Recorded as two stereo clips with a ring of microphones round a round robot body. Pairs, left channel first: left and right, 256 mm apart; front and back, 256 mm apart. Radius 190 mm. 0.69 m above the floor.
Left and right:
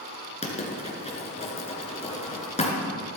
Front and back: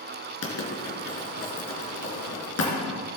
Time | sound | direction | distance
0.4 | writing | 25° left | 2.5 m